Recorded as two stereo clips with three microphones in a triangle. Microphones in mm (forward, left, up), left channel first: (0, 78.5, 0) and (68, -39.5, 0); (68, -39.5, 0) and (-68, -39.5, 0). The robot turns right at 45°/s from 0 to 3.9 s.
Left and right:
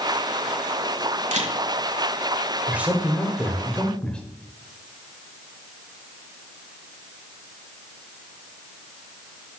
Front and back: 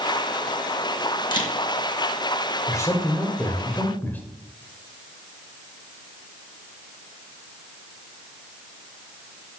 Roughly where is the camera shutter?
Ahead right.